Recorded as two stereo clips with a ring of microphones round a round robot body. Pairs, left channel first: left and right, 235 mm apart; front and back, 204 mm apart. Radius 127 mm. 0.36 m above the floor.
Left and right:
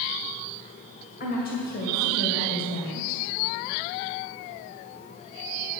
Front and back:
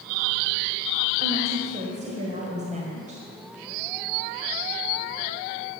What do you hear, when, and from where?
1.2 s a woman speaking: 130° left, 1.9 m